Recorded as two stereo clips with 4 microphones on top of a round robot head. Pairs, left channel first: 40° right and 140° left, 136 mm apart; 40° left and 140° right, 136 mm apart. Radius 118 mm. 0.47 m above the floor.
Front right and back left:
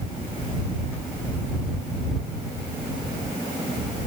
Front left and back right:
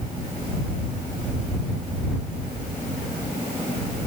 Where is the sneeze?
I don't hear a sneeze.